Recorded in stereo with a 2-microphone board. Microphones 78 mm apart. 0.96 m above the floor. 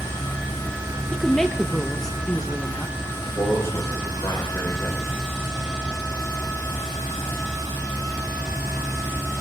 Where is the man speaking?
35° left (ahead or behind), 4 m.